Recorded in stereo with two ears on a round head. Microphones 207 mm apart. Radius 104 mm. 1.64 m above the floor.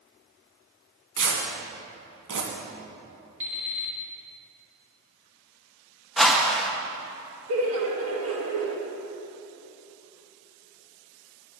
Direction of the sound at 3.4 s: 5° right (ahead or behind).